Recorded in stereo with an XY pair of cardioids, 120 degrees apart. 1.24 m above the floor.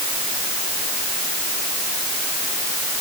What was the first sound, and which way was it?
Only background noise.